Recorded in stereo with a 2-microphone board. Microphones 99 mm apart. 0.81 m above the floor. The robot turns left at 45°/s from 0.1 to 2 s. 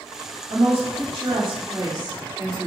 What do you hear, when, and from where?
0.5 s a woman speaking: 65° right, 2.5 m; by 2.7 s 130° right, 2.5 m